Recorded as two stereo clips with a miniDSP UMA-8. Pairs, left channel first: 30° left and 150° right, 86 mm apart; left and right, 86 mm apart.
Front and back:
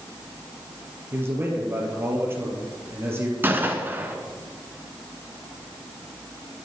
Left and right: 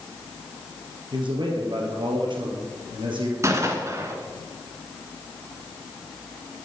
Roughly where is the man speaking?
Right.